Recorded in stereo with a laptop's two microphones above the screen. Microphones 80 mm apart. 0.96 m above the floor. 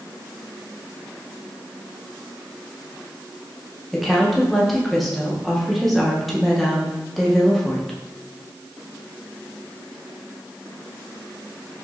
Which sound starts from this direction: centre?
A woman speaking, at 3.9 s.